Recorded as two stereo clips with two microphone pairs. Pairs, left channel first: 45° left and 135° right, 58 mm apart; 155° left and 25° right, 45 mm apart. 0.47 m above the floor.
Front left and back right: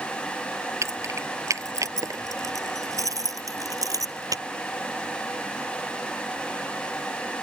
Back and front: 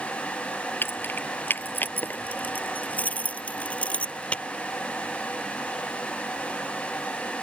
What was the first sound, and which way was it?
Keys jangling, 170° right.